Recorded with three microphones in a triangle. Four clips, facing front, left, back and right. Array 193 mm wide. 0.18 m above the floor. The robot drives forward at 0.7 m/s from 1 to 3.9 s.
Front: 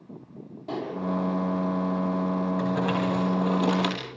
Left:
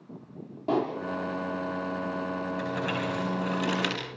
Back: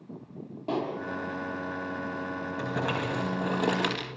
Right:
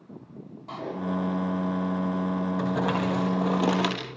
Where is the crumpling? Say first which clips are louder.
Right 4 dB, front 5 dB; 120° right, 5.5 m; by 4.2 s 125° right, 6 m.